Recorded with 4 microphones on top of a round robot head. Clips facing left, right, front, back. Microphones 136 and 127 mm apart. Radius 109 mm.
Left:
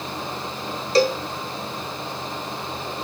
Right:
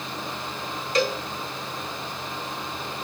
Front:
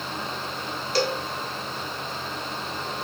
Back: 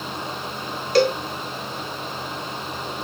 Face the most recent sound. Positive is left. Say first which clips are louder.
# left 6 dB, back 7 dB
turn(degrees=145)